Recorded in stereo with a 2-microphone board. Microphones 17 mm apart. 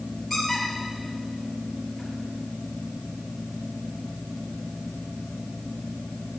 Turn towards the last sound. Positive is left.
turn(degrees=-5)  # may be behind; listen again after turning